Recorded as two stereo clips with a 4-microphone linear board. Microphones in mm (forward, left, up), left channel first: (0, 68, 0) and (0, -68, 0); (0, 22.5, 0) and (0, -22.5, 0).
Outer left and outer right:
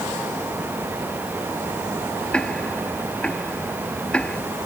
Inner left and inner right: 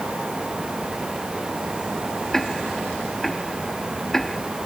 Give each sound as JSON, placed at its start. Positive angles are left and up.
{"t": 2.3, "sound": "ticking", "side_deg": 10}